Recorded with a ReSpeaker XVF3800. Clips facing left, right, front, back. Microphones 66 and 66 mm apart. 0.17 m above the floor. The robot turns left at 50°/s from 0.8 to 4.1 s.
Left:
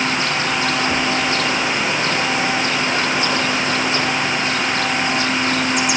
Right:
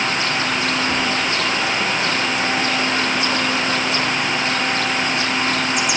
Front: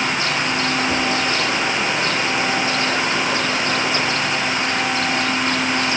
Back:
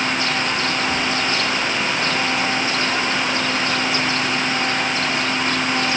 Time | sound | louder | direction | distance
0.9 | whispering | left 1 dB, front 2 dB | 15° left | 3.5 m